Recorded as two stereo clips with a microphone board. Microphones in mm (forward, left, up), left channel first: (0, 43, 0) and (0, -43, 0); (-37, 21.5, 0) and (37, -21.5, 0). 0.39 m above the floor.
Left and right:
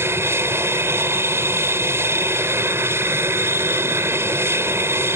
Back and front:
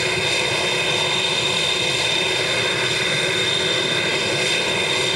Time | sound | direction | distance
0.0 | an aircraft | 120° right | ?